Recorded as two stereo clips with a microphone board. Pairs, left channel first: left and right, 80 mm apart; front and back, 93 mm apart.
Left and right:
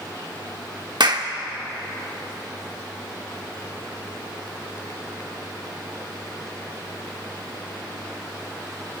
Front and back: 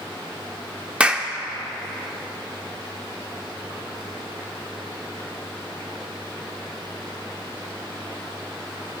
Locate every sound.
1.0 s a clap: 105° right, 0.9 m